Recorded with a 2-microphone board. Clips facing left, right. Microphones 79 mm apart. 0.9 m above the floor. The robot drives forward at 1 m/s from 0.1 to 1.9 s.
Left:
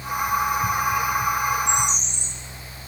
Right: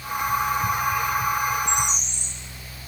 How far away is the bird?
About 4 m.